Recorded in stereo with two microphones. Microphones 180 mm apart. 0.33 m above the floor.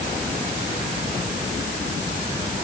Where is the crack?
No crack in this recording.